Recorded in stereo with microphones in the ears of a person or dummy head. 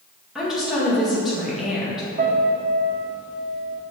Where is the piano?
40° right (ahead or behind), 1.0 m.